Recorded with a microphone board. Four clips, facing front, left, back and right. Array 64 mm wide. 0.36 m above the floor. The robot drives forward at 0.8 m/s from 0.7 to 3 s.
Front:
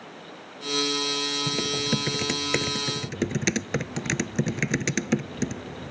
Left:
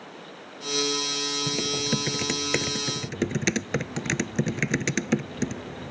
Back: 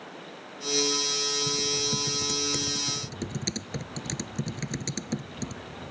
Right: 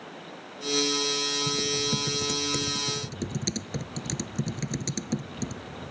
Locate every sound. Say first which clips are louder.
1.5 s typing on a keyboard: left 3 dB, front 4 dB; 40° left; by 5.9 s 50° left